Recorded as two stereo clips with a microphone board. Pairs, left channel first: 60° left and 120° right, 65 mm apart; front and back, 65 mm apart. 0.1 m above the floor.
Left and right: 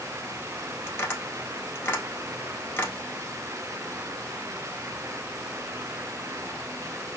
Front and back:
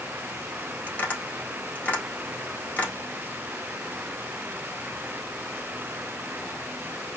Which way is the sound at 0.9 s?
45° left.